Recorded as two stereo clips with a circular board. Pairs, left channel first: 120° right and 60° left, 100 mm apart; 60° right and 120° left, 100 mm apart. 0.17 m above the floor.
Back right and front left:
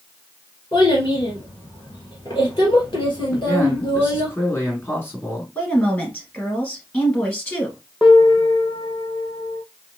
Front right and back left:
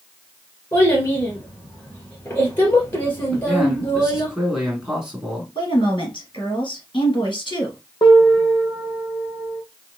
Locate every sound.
0.7 s a child speaking: 90° right, 1.3 m
3.3 s a man speaking: 155° right, 1.7 m
5.5 s a woman speaking: 50° right, 2 m
8.0 s a piano: 25° right, 1.0 m